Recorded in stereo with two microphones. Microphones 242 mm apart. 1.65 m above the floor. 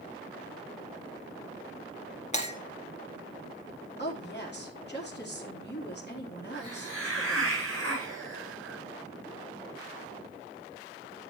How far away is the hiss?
About 6 m.